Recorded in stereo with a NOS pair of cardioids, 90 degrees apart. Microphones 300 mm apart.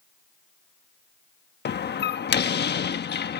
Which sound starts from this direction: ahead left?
A door slam, at 1.6 s.